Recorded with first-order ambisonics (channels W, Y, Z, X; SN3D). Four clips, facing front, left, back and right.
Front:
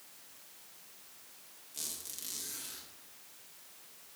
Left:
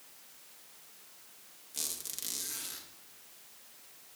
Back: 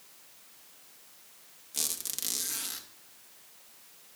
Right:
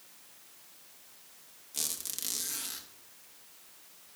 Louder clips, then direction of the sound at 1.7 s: Right 3 dB, back 8 dB; 160° right.